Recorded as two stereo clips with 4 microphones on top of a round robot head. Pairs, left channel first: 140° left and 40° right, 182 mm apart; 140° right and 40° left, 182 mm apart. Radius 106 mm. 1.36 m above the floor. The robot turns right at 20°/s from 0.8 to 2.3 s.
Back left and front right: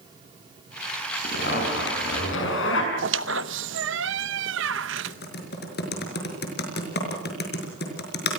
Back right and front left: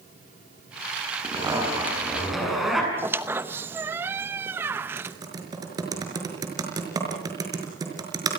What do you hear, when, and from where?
1.2 s a zipper: 105° left, 7 m; by 2.9 s 125° left, 7 m
3.0 s a squeak: 40° right, 0.8 m
5.0 s typing on a keyboard: 110° left, 5 m